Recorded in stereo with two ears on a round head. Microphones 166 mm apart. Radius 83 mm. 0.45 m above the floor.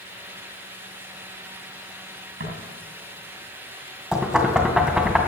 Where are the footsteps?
55° right (ahead or behind), 8.5 m.